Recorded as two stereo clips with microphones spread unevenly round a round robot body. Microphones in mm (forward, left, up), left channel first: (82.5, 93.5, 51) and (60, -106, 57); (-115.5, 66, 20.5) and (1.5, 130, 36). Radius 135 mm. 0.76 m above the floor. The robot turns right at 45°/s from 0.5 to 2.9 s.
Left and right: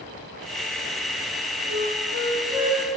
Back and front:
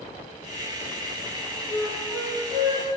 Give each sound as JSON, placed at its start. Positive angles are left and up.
{"t": 1.7, "sound": "a flute", "azimuth_deg": -100, "distance_m": 5.5}